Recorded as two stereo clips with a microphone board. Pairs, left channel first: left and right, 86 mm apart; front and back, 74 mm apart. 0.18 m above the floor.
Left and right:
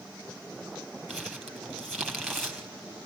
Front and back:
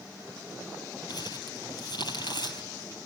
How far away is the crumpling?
About 3 m.